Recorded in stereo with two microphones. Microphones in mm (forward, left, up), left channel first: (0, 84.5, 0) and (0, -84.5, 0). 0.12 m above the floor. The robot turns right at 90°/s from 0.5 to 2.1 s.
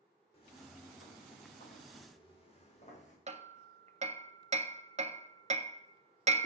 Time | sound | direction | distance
0.3 | footsteps | 35° left (ahead or behind) | 3 m
3.3 | hammering | 40° right (ahead or behind) | 0.5 m